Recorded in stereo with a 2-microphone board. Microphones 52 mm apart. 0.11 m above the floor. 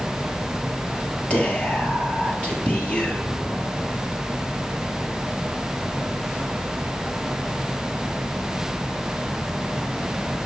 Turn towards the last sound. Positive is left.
turn(degrees=25)  # may be behind; listen again after turning